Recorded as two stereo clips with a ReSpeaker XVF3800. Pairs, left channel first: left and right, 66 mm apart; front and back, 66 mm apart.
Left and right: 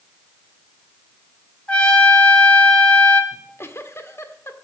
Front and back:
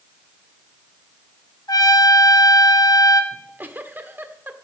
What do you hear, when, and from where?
1.7 s a trumpet: 15° left, 1.8 m
3.3 s a giggle: 130° left, 1.4 m